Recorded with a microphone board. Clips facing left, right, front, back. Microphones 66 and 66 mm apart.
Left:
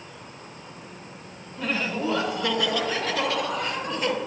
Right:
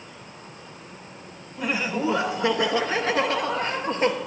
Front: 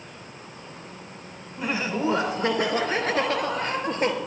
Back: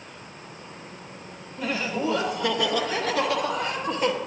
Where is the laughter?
30° right, 1.1 m; by 4.1 s 45° right, 2 m.